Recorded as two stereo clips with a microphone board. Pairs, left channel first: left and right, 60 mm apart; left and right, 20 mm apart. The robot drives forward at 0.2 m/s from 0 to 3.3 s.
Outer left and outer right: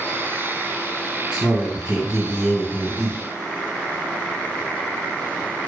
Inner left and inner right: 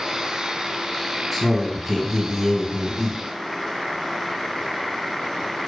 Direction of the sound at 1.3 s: 15° right (ahead or behind).